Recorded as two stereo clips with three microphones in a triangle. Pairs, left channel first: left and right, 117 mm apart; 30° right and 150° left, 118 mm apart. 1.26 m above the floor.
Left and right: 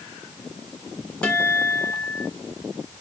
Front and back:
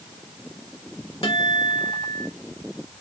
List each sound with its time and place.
1.2 s a guitar: 10° left, 2.5 m